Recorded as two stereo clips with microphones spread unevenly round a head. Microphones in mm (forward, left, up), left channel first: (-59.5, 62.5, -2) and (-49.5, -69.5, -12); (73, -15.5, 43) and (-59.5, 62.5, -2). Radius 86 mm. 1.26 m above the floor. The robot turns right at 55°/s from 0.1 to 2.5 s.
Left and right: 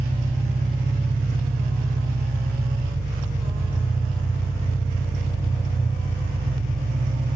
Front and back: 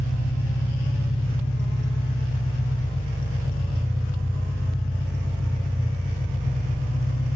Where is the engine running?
25° right, 1.3 m; by 7.3 s 105° left, 1.3 m.